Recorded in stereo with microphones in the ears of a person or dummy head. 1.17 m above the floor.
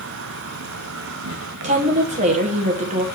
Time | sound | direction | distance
0.0 | an insect | 75° right (ahead or behind) | 0.7 m
1.6 | a woman speaking | 35° right (ahead or behind) | 1.7 m